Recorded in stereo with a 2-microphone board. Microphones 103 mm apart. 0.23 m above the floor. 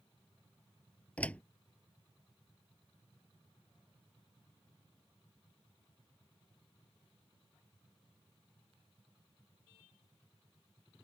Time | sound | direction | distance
1.2 | a door slam | 10° left (ahead or behind) | ?